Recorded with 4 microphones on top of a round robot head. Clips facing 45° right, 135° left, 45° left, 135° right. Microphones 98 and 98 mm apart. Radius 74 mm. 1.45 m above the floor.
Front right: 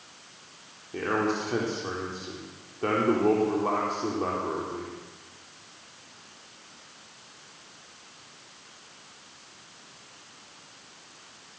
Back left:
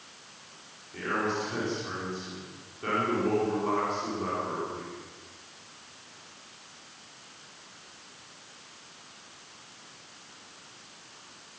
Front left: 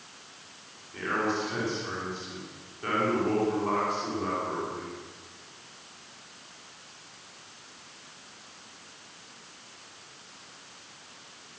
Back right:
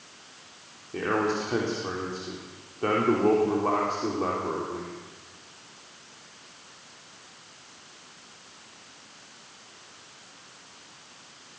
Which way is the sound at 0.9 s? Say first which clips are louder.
Front right 3 dB, back right 3 dB; 95° right.